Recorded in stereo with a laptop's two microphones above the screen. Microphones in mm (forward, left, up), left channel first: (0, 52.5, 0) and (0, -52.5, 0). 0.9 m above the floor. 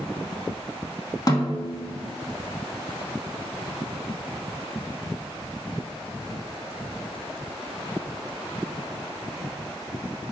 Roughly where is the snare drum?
Left.